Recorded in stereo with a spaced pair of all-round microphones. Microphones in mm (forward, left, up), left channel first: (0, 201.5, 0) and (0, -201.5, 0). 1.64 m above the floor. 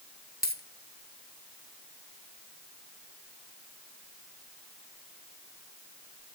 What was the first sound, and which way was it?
A dropped coin, 25° left (ahead or behind).